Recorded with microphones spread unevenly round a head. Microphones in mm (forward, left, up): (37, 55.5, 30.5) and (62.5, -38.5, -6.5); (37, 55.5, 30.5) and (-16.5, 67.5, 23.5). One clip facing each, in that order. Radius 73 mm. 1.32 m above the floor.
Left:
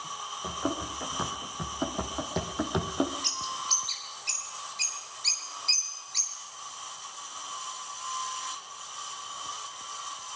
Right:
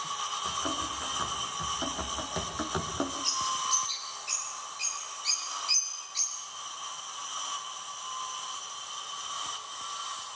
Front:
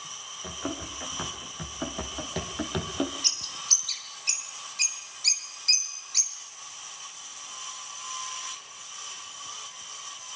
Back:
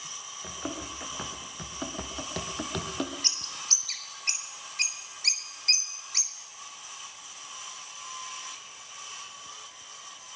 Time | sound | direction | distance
0.4 | running footsteps | 75° left | 4.5 m
3.2 | a bird | 115° left | 3.5 m